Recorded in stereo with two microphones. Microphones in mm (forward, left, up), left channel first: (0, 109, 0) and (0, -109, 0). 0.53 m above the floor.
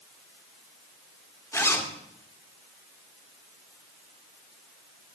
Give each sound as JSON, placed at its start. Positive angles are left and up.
{"t": 1.5, "sound": "a zipper", "side_deg": 15, "distance_m": 1.7}